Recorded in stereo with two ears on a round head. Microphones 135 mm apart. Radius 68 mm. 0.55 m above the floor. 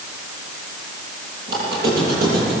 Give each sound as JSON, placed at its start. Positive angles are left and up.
{"t": 1.5, "sound": "a squeak", "side_deg": -75, "distance_m": 9.0}